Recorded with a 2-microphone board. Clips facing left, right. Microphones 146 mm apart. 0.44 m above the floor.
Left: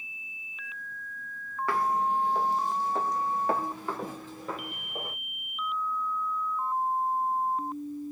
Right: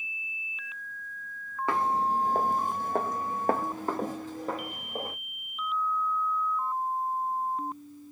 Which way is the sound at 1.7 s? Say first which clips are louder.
Even; 20° right (ahead or behind).